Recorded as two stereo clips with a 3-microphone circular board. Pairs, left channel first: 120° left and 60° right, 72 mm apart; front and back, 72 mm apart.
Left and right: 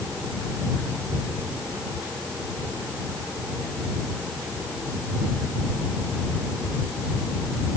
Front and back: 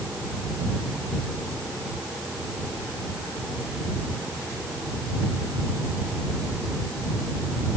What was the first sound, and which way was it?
Only background noise.